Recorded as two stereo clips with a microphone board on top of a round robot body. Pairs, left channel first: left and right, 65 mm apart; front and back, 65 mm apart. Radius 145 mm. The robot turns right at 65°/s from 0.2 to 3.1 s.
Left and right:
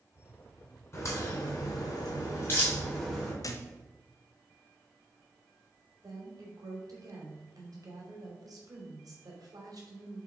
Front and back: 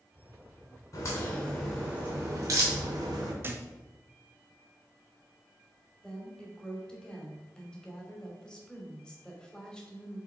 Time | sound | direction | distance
0.9 | a crack | 40° left | 3 m
3.4 | a thud | 125° left | 0.7 m
6.0 | a woman speaking | 75° right | 2.5 m